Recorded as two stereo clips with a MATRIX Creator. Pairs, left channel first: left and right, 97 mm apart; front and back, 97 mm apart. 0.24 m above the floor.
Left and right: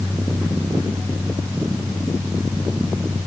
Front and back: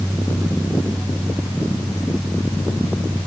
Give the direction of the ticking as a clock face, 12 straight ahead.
I don't hear ticking.